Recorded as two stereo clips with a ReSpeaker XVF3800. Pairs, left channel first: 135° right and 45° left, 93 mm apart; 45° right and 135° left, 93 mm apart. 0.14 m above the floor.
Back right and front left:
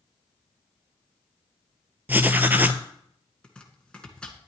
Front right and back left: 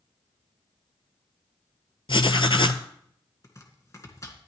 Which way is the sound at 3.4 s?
65° right.